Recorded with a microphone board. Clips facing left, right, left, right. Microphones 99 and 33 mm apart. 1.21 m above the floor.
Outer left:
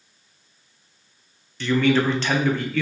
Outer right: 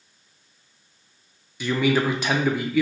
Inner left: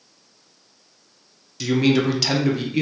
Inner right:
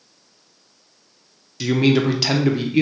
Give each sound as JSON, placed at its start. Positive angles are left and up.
{"t": 1.6, "sound": "a man speaking", "side_deg": -10, "distance_m": 0.5}